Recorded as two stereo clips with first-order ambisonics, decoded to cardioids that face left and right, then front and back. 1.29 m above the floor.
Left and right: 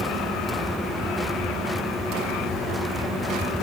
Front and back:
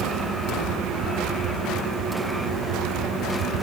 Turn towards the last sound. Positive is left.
No sound to turn to.